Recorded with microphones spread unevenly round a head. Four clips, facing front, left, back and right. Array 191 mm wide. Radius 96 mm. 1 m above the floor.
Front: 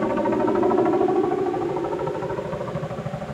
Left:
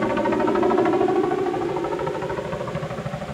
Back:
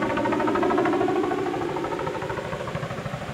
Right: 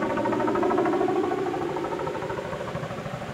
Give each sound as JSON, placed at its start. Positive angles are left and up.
{"t": 0.0, "sound": "a helicopter", "azimuth_deg": 40}